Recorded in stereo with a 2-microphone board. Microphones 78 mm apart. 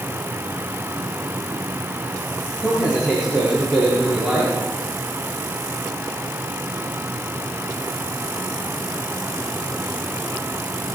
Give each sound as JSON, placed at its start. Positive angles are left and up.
{"t": 2.6, "sound": "a man speaking", "side_deg": -15, "distance_m": 8.0}